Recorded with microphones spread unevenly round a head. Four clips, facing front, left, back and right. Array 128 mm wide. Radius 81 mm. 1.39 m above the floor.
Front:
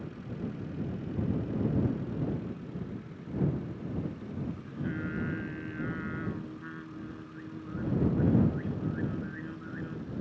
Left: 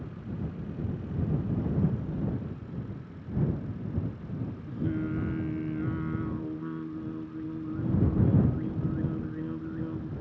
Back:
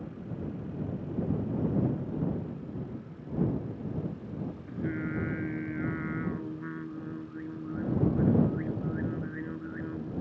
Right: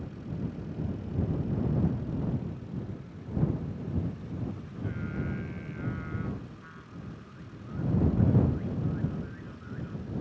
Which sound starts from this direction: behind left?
Singing, at 4.7 s.